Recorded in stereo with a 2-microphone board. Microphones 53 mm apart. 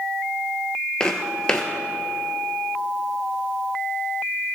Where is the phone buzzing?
I don't hear a phone buzzing.